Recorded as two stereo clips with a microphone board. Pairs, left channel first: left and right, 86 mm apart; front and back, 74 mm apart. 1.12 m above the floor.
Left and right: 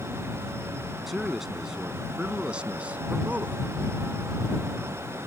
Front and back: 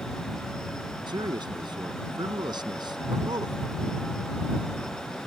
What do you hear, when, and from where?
1.1 s a man speaking: straight behind; by 3.6 s 160° right